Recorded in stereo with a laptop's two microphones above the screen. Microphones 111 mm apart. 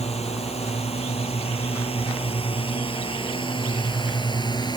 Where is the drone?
65° left (ahead or behind); by 4.8 s 35° left (ahead or behind).